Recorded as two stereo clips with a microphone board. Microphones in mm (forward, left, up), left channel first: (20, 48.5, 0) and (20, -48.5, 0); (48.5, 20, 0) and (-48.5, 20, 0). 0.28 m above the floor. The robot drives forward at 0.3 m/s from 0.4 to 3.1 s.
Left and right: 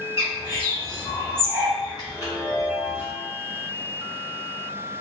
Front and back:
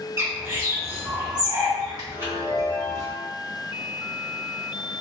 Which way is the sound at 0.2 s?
120° left.